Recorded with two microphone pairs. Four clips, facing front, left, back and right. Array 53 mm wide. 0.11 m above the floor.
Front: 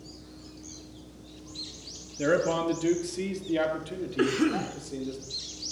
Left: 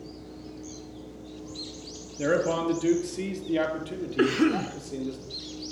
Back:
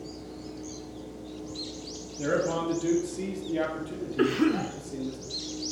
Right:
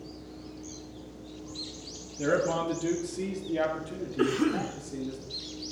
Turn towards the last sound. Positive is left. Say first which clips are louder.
# left 3 dB, back 1 dB
turn(degrees=85)